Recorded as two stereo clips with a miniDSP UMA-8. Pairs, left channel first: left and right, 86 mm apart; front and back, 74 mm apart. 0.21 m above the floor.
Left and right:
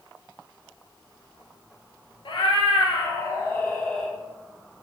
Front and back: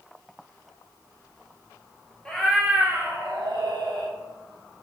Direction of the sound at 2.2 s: 75° left.